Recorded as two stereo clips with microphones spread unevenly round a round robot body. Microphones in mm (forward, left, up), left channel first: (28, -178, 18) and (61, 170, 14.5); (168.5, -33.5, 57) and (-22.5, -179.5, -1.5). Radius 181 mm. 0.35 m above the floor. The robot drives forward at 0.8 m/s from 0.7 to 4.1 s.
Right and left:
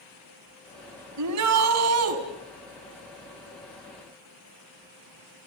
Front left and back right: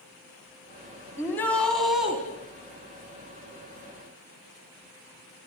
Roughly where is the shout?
Behind left.